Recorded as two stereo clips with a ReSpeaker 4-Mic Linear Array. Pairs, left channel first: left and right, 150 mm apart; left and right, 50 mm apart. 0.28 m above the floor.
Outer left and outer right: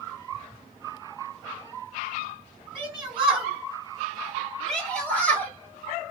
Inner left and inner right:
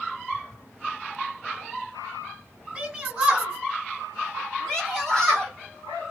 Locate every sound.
2.8 s a shout: 10° right (ahead or behind), 2.5 m; by 5.5 s 15° left (ahead or behind), 1.6 m